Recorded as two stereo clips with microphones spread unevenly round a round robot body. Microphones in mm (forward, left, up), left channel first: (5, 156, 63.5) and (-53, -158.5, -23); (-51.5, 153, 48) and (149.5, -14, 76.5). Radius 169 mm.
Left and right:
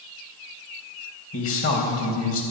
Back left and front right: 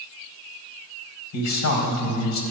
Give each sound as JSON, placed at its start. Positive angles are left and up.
{"t": 1.3, "sound": "a man speaking", "azimuth_deg": 135, "distance_m": 4.0}